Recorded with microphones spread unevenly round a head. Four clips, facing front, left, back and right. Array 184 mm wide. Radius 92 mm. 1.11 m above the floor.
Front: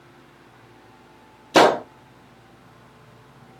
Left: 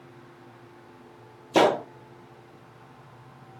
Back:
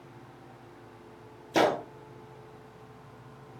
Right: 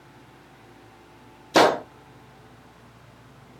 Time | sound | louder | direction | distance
1.5 | a gunshot | right 2 dB, front 10 dB | 5° right | 0.6 m